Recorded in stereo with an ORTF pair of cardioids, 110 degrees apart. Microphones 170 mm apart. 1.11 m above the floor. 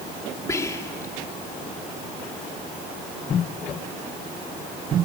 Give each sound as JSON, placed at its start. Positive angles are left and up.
{"t": 0.5, "sound": "whispering", "azimuth_deg": 20, "distance_m": 2.5}